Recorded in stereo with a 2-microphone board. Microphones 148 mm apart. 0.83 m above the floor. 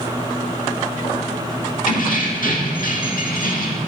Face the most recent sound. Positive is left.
turn(degrees=70)  # may be behind; listen again after turning